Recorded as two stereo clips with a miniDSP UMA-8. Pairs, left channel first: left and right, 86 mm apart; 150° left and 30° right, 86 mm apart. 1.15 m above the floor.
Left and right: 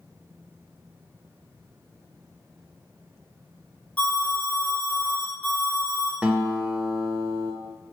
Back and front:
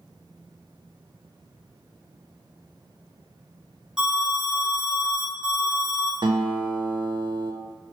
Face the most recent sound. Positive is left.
turn(degrees=-15)